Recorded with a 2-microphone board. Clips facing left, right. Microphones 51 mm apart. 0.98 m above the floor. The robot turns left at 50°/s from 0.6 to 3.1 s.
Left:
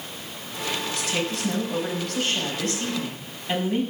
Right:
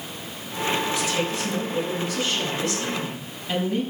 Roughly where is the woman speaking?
Behind left.